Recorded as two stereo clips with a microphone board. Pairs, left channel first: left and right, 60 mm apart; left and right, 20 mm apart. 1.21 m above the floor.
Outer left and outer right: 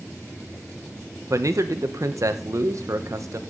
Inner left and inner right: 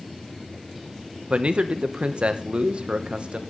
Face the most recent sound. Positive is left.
turn(degrees=-70)  # may be behind; listen again after turning